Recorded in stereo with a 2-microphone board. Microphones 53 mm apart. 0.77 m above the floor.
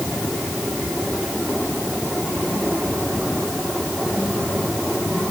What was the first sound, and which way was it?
Only background noise.